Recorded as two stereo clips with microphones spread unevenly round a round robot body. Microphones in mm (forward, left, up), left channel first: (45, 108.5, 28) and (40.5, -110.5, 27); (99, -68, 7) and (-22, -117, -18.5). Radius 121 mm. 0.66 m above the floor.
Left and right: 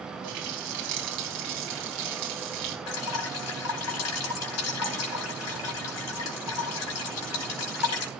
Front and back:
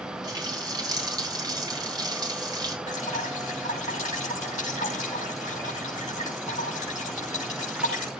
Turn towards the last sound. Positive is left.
turn(degrees=85)